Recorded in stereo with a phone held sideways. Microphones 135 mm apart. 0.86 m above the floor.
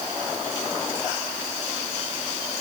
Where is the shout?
I don't hear a shout.